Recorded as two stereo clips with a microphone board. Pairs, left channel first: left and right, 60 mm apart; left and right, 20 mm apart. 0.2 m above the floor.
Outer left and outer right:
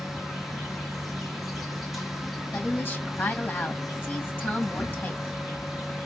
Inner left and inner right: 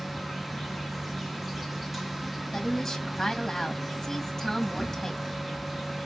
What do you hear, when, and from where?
0.0 s an insect: centre (ahead or behind), 1.4 m
2.5 s a woman speaking: 30° left (ahead or behind), 1.6 m